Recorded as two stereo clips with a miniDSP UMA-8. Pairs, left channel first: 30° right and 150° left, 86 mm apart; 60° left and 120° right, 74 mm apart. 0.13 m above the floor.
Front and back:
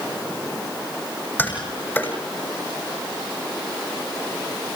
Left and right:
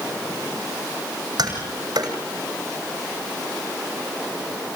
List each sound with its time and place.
1.4 s tapping: 100° right, 6.5 m